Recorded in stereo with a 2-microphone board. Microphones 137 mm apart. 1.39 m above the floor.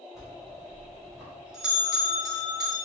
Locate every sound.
0.1 s a bell: 5° right (ahead or behind), 1.9 m